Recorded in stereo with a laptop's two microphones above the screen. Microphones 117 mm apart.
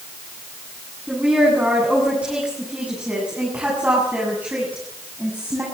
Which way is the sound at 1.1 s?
10° right (ahead or behind).